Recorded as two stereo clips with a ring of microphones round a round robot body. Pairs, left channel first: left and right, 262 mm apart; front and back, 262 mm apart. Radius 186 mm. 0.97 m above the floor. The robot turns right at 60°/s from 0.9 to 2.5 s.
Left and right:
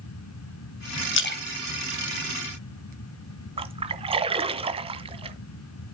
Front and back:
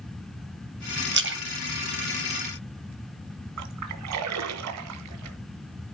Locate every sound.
1.1 s a splash: 130° left, 3 m; by 2.9 s 145° right, 3 m
3.6 s a splash: 160° right, 1.6 m